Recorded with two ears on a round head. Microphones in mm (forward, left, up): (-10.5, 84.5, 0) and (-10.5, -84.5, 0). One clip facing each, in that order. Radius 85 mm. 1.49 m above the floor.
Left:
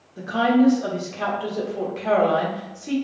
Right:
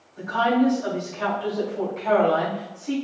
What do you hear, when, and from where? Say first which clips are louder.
0.2 s a woman speaking: left 3 dB; 60° left (ahead or behind), 1.5 m